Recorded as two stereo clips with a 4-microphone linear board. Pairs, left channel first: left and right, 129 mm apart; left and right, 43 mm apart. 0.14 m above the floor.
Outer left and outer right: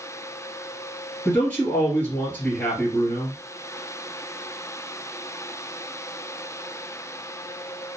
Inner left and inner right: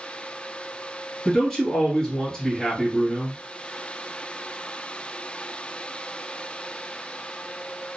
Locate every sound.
1.2 s a man speaking: 15° left (ahead or behind), 1.7 m